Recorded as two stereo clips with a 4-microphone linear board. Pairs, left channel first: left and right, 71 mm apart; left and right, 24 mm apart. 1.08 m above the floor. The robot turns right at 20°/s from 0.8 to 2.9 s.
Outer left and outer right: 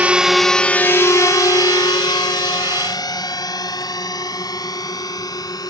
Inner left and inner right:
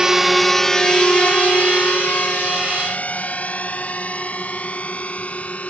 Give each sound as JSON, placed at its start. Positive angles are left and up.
{"t": 0.0, "sound": "a drone", "side_deg": -20}